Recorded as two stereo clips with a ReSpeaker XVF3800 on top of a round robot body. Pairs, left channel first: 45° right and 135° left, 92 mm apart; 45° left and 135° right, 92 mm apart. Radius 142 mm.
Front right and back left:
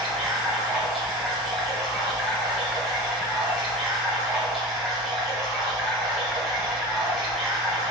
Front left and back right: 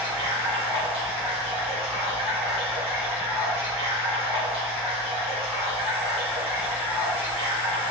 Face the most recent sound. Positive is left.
turn(degrees=-140)